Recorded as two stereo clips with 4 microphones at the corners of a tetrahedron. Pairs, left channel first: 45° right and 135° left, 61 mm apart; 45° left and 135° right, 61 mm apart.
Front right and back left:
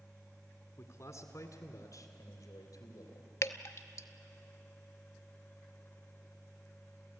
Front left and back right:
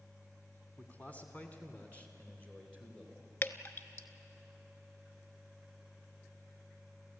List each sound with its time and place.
0.8 s a man speaking: 15° right, 2 m; by 3.3 s 30° right, 4 m
3.4 s dripping: 5° right, 0.7 m